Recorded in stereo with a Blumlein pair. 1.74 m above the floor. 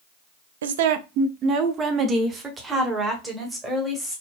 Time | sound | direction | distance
0.6 | a woman speaking | 65° right | 0.6 m